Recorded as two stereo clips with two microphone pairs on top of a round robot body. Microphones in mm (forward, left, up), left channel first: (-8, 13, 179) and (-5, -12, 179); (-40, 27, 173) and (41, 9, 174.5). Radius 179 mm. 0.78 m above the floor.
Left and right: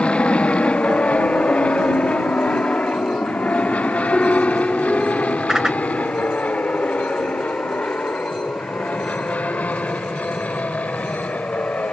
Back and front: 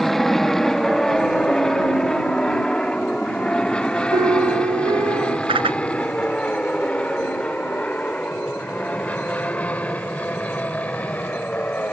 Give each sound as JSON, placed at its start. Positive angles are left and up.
{"t": 0.0, "sound": "an aircraft", "azimuth_deg": 85}
{"t": 4.1, "sound": "a piano", "azimuth_deg": 20}
{"t": 5.5, "sound": "a whoosh", "azimuth_deg": -15}